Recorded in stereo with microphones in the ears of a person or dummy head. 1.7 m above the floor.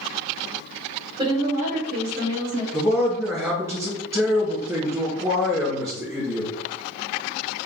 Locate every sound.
1.2 s a woman speaking: 25° right (ahead or behind), 1.2 m; by 2.6 s 65° right (ahead or behind), 2 m
2.7 s a man speaking: 20° right (ahead or behind), 1.5 m